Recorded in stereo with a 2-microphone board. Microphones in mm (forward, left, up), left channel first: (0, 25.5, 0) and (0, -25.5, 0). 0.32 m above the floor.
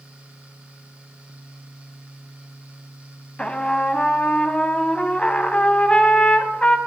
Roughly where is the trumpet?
Left.